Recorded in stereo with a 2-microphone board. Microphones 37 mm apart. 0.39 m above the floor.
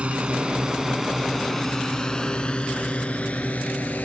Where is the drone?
35° right (ahead or behind); by 4.0 s 45° left (ahead or behind).